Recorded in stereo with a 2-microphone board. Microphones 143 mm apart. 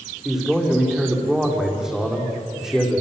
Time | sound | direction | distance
0.2 | a man speaking | 5° right (ahead or behind) | 6.5 m